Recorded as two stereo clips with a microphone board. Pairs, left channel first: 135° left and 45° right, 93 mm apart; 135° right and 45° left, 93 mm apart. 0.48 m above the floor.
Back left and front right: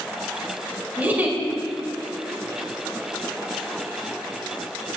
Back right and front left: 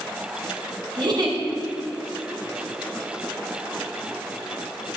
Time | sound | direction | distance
1.0 | a giggle | 25° left | 2 m